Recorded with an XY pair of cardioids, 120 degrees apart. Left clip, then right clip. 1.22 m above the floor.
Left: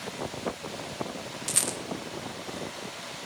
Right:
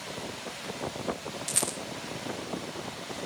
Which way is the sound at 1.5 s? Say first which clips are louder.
Left 2 dB; 10° left.